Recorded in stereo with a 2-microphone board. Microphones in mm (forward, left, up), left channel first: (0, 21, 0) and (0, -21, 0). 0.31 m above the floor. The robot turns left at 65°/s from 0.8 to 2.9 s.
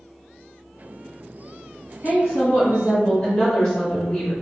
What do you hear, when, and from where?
2.0 s a woman speaking: 85° left, 1.8 m; by 4.3 s 25° left, 1.8 m